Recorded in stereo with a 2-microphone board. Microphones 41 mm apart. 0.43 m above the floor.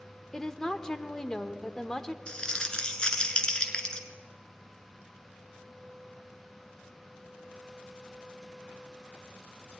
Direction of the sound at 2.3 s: 20° left (ahead or behind).